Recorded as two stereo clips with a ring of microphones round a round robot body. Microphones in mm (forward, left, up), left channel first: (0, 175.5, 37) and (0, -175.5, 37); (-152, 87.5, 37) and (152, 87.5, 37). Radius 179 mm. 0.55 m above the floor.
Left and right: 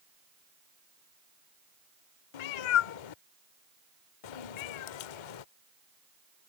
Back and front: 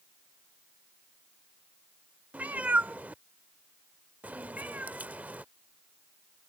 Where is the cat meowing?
85° left.